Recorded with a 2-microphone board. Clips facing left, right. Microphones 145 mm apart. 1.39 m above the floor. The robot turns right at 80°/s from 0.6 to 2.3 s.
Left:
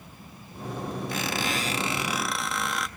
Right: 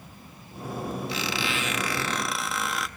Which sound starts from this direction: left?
A squeak, at 1.1 s.